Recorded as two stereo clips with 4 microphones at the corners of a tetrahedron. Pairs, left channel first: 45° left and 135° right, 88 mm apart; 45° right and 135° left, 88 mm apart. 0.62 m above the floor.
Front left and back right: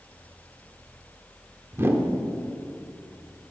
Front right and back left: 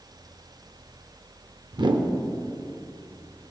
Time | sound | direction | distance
1.7 | a whoosh | 165° left | 0.5 m